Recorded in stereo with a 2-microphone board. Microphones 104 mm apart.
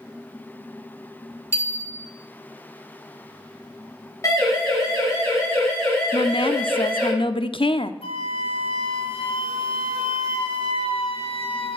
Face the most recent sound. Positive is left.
turn(degrees=65)  # may be behind; listen again after turning